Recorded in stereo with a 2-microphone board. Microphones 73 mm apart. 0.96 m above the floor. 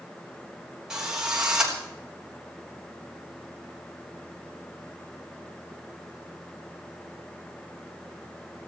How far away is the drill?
About 3.5 m.